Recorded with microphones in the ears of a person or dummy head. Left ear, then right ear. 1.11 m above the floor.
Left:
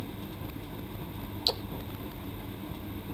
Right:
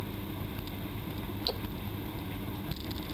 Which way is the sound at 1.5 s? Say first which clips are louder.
Left 5 dB; 30° left (ahead or behind).